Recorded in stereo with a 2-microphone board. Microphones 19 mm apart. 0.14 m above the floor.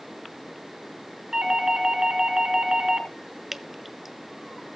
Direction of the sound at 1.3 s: 35° right (ahead or behind).